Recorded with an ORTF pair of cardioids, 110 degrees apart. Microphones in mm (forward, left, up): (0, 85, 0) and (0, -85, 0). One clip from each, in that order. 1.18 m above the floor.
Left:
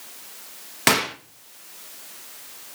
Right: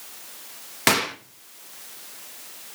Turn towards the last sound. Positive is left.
turn(degrees=5)